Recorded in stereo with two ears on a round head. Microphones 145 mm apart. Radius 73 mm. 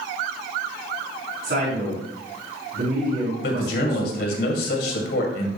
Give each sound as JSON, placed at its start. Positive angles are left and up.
{"t": 1.4, "sound": "a man speaking", "side_deg": -55, "distance_m": 5.0}
{"t": 3.4, "sound": "a man speaking", "side_deg": 65, "distance_m": 2.5}